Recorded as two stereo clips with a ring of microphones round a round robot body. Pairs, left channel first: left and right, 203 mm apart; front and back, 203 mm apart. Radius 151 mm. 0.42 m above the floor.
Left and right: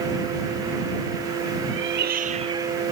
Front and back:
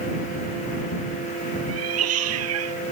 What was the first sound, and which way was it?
A cat meowing, 140° right.